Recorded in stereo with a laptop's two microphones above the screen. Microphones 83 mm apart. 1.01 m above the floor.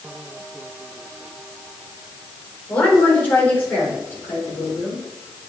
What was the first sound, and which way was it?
A woman speaking, 20° left (ahead or behind).